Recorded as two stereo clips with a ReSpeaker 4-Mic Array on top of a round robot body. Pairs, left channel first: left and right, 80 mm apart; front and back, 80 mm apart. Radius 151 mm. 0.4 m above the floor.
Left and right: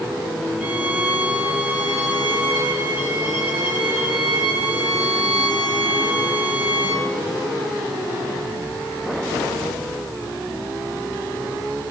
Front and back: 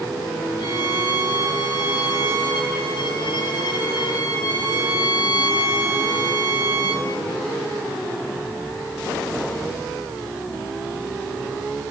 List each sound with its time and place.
0.6 s a violin: 15° right, 8.5 m